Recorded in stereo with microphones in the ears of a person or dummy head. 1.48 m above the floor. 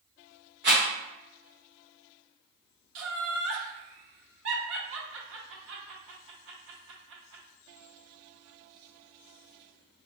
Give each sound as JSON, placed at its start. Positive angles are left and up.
{"t": 0.6, "sound": "a rattle", "side_deg": -55, "distance_m": 1.1}
{"t": 3.0, "sound": "laughter", "side_deg": -65, "distance_m": 0.9}